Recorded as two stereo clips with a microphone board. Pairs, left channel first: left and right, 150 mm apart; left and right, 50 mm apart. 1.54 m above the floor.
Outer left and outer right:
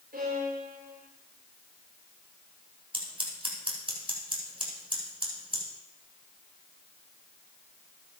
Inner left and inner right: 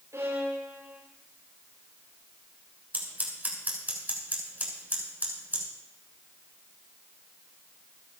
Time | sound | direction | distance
0.1 | a violin | 85° right | 7.5 m
2.9 | scissors | 40° right (ahead or behind) | 5 m